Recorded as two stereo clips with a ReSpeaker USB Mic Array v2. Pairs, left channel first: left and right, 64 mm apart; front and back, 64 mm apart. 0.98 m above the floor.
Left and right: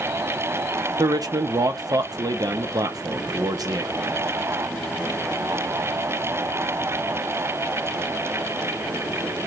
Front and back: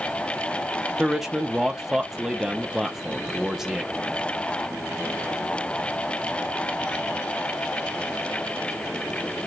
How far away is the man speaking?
About 0.7 m.